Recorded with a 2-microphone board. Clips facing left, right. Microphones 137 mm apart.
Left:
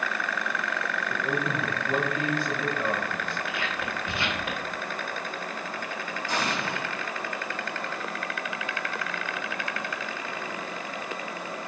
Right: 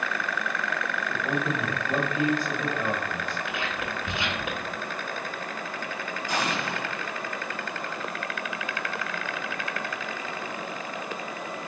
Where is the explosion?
15° right (ahead or behind), 2 m.